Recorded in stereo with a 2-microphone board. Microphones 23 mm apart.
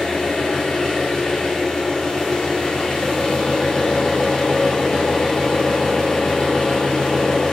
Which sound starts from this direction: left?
An engine running, at 0.0 s.